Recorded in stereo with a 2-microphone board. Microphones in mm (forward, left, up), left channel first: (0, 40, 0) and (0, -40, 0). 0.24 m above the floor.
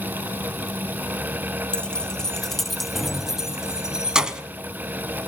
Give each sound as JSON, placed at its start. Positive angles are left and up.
{"t": 1.7, "sound": "keys jangling", "side_deg": 15, "distance_m": 0.8}